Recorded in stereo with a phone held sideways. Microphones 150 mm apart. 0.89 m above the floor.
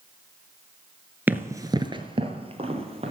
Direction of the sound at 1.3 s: 10° right (ahead or behind).